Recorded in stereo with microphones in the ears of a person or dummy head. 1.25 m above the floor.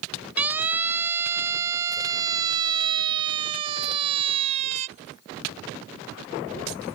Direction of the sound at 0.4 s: 10° right (ahead or behind).